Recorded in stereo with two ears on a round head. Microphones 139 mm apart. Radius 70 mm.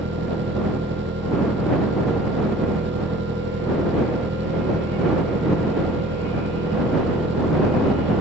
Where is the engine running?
75° right (ahead or behind).